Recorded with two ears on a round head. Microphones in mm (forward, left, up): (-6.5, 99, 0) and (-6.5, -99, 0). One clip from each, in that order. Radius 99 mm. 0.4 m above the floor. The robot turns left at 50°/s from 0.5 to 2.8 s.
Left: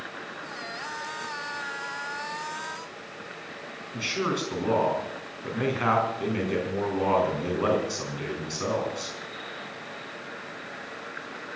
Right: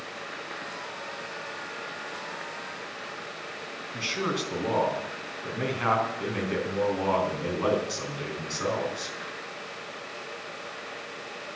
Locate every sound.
3.9 s a man speaking: 5° right (ahead or behind), 4.5 m